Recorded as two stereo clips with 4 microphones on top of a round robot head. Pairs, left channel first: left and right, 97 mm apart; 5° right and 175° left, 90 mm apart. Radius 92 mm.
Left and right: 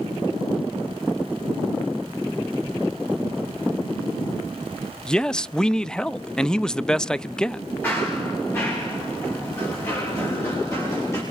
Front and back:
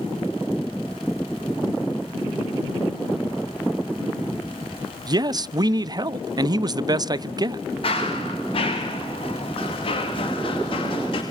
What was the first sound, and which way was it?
A man speaking, 170° left.